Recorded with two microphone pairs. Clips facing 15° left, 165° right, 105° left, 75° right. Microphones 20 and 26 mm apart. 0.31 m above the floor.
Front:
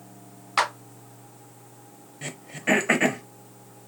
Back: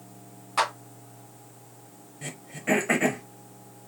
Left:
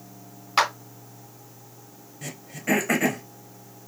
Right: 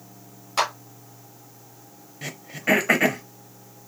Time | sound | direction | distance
0.6 | a clap | 55° left | 2.5 m
2.2 | throat clearing | 25° right | 0.7 m